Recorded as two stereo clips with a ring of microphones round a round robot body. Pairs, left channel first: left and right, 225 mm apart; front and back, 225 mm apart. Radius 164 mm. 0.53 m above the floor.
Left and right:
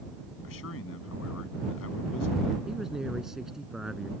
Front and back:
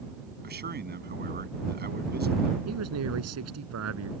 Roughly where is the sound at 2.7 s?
Behind.